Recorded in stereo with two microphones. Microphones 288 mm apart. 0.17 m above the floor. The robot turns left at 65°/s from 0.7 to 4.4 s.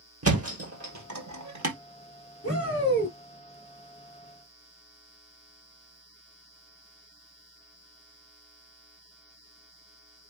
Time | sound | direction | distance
0.2 | a thud | 55° right (ahead or behind) | 1.6 m
2.4 | a shout | 70° left | 3 m